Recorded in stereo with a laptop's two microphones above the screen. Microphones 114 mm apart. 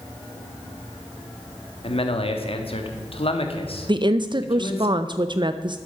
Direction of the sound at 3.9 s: 45° right (ahead or behind).